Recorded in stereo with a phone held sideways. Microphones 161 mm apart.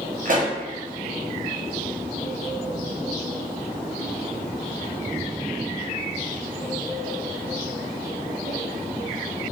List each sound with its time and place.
0.2 s a pop: 55° right (ahead or behind), 0.7 m